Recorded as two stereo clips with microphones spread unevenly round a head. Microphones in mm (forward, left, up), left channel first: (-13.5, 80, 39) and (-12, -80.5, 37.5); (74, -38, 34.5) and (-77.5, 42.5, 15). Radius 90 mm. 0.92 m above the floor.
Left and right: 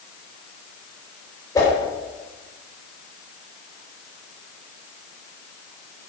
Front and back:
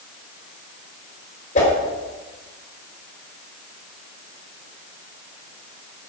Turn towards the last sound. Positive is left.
turn(degrees=15)